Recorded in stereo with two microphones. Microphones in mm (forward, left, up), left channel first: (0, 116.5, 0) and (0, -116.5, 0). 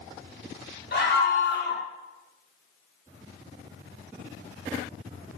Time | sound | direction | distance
0.9 | a scream | 45° left (ahead or behind) | 1.6 m